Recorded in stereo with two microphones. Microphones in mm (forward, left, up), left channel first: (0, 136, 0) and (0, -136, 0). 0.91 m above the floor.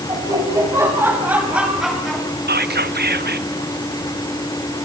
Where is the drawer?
No drawer in this recording.